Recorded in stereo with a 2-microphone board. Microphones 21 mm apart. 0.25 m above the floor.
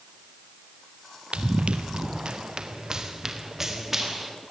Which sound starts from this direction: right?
Running footsteps, at 1.3 s.